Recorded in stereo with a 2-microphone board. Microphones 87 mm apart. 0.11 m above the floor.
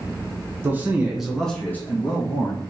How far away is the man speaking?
About 1.1 m.